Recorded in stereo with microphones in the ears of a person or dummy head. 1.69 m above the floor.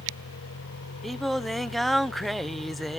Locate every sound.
0.0 s a vehicle: 80° left; by 3.0 s 35° left (ahead or behind)
1.0 s singing: 5° left (ahead or behind)